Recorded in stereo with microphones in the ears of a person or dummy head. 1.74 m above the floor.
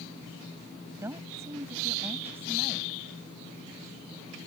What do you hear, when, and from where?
1.0 s a woman speaking: 25° right (ahead or behind); by 3.0 s 15° right (ahead or behind)